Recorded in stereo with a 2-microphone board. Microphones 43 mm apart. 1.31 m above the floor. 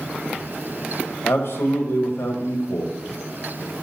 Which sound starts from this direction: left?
A man speaking, at 1.2 s.